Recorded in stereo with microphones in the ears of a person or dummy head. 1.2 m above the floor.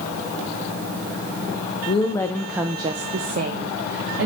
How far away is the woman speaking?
About 0.6 m.